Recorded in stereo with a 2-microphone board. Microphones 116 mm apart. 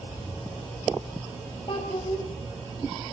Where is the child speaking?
50° left (ahead or behind), 3 m.